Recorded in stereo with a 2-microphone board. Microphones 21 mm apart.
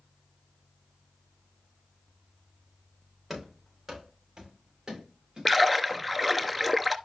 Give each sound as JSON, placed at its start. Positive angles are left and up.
{"t": 3.3, "sound": "running footsteps", "side_deg": -20, "distance_m": 4.0}
{"t": 5.5, "sound": "a splash", "side_deg": 0, "distance_m": 0.6}